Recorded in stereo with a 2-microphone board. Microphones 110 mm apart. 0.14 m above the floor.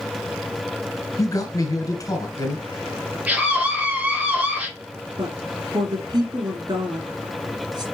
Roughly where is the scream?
Centre.